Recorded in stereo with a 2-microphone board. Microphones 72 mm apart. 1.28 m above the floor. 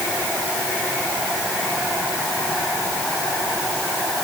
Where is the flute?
I don't hear a flute.